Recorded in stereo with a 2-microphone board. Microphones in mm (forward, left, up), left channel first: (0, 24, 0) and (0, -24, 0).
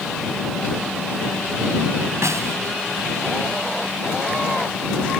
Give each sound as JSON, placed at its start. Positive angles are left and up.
{"t": 2.2, "sound": "a snare drum", "side_deg": -85}